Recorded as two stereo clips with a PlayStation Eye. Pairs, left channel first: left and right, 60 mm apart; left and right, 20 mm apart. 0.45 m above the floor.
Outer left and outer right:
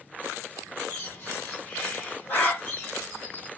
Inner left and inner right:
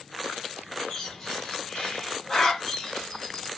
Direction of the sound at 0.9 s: 30° left (ahead or behind).